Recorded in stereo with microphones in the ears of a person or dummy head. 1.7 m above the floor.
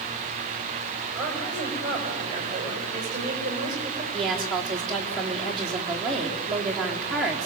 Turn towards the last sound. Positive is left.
turn(degrees=0)  # may be behind; listen again after turning